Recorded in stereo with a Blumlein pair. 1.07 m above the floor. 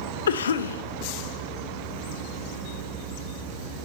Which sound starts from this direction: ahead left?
A cough, at 0.3 s.